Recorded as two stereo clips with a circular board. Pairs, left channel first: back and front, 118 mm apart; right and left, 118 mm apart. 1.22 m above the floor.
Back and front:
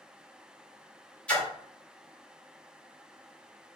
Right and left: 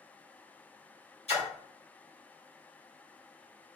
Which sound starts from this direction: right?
A splash, at 1.3 s.